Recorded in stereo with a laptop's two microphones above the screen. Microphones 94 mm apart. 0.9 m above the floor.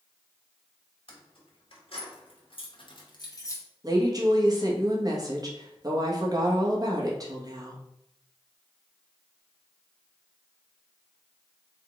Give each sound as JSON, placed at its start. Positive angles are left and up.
{"t": 1.1, "sound": "keys jangling", "side_deg": 70, "distance_m": 1.4}
{"t": 3.8, "sound": "a woman speaking", "side_deg": -40, "distance_m": 1.1}